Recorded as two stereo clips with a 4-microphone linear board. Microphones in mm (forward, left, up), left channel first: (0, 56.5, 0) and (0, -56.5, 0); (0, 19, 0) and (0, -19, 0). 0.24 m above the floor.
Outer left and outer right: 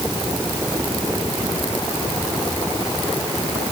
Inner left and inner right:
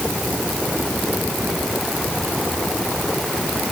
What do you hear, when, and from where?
Only background noise.